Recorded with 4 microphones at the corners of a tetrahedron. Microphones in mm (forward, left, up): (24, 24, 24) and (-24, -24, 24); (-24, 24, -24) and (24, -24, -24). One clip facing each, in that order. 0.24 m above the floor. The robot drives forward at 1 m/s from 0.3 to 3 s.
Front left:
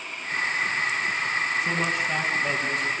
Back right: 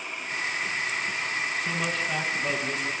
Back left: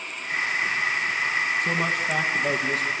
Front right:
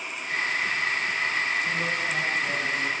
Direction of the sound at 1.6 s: 115° left.